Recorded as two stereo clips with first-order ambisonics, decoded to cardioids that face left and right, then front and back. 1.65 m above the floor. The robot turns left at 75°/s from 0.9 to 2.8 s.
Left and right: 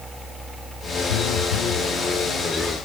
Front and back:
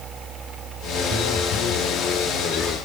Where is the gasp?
No gasp in this recording.